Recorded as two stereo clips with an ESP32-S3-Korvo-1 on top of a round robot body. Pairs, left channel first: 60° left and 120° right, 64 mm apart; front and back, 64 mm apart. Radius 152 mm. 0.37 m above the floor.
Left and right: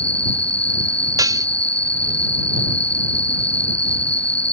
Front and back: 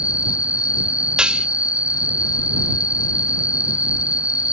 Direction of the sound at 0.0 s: 120° left.